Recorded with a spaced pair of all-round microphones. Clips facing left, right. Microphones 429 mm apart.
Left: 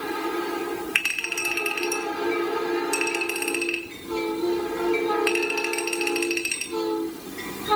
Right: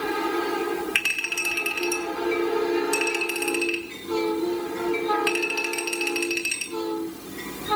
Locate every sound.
0.9 s a clink: 50° right (ahead or behind), 2.5 m